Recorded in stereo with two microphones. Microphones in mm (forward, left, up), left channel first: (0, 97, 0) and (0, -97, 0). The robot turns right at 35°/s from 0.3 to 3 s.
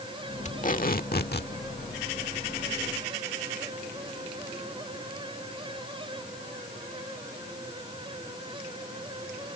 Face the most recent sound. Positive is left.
turn(degrees=135)